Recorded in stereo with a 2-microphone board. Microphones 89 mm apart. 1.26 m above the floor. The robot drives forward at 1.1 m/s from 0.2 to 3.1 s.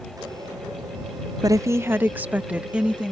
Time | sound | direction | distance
1.4 | a woman speaking | 45° right (ahead or behind) | ?